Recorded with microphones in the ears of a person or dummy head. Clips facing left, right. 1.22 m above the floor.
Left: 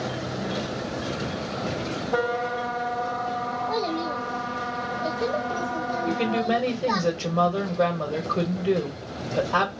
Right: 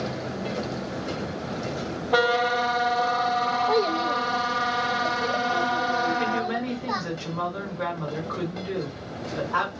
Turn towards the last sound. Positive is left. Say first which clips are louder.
# left 2 dB
turn(degrees=80)